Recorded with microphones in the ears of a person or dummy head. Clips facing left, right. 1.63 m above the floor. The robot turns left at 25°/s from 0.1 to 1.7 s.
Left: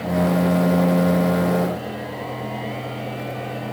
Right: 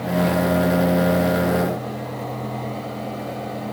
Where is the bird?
I don't hear a bird.